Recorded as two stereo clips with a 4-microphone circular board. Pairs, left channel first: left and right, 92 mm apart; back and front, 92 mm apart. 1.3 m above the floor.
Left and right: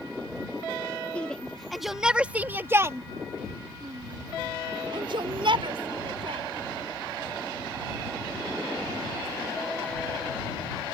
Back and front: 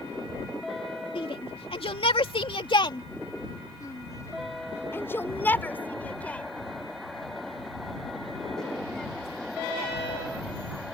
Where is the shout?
165° left; by 9.9 s 95° right.